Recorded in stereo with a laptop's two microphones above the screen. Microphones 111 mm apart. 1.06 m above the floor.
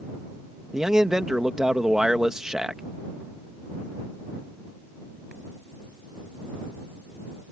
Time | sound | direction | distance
0.7 | a man speaking | 5° right (ahead or behind) | ?